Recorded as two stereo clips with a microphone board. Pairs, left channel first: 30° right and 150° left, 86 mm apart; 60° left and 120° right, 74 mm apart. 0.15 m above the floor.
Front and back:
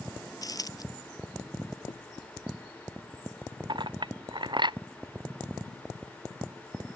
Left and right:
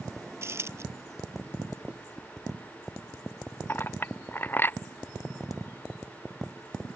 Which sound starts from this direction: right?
A dropped coin, at 0.4 s.